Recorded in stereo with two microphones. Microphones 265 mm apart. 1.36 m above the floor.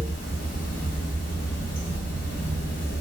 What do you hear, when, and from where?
0.0 s running water: 30° left (ahead or behind), 1.5 m